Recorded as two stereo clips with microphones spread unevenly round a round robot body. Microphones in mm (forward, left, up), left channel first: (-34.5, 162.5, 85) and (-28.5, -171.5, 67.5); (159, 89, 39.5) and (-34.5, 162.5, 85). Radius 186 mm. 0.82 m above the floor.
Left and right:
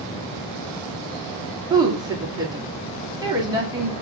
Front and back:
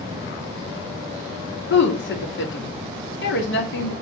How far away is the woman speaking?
About 2 m.